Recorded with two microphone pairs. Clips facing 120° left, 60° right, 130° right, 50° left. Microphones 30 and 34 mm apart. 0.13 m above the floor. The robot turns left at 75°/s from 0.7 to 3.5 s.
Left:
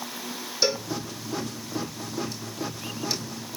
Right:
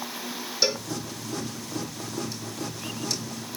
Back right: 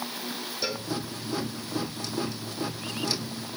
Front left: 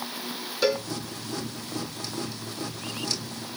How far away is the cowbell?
About 3 m.